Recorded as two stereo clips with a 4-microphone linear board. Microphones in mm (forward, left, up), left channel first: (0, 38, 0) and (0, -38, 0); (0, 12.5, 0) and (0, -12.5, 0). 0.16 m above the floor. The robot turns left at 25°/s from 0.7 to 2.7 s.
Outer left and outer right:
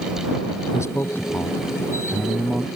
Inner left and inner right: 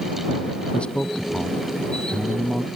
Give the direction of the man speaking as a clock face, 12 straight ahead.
11 o'clock.